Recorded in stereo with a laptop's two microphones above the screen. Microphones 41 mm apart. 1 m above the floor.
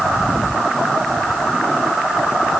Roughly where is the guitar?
I don't hear a guitar.